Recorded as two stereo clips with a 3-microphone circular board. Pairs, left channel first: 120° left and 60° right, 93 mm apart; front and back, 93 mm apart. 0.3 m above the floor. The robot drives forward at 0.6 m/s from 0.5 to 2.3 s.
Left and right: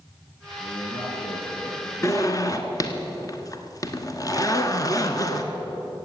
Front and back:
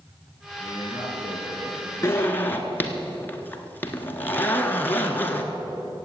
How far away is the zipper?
About 1.2 m.